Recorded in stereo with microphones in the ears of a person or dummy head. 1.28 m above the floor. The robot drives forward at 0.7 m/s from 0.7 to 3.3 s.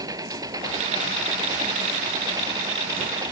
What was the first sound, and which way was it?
An engine running, 15° right (ahead or behind).